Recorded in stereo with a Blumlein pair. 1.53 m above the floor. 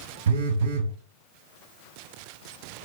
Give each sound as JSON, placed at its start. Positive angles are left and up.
{"t": 0.3, "sound": "a phone buzzing", "azimuth_deg": -60, "distance_m": 0.5}